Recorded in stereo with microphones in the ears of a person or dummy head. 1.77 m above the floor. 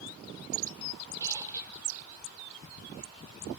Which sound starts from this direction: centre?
A squeak, at 1.2 s.